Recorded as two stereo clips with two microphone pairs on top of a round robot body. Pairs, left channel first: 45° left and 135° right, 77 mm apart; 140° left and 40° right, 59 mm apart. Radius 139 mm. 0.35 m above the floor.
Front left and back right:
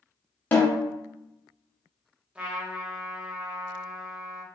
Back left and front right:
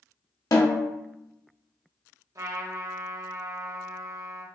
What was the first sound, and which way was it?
A snare drum, 110° left.